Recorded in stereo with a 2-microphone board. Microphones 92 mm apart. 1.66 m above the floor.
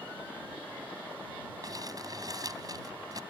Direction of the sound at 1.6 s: 40° right (ahead or behind).